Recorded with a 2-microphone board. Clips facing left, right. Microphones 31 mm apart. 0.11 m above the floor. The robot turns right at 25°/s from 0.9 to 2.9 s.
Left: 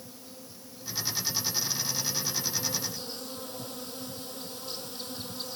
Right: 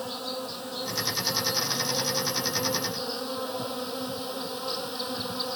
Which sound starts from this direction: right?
An insect, at 0.0 s.